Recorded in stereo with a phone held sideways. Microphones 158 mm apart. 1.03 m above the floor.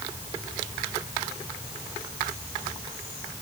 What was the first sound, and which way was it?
Only background noise.